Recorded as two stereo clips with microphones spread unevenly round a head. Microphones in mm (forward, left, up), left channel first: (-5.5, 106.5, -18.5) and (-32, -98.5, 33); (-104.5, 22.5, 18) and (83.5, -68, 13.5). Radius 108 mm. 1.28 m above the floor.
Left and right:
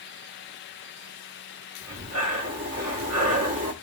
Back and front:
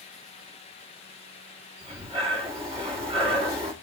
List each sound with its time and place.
1.8 s breathing: 90° right, 1.6 m